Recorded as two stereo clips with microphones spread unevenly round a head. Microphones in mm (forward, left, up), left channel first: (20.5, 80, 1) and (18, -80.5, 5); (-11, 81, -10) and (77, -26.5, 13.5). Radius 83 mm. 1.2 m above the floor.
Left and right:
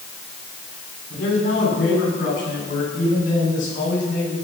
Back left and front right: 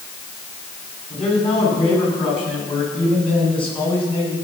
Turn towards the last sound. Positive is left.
turn(degrees=75)